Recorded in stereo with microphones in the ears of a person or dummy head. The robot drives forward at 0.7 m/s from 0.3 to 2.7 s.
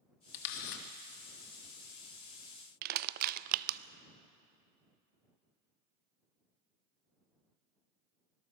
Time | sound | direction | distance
0.3 | a camera shutter | 70° left (ahead or behind) | 1.9 m
2.8 | crushing | 50° right (ahead or behind) | 0.6 m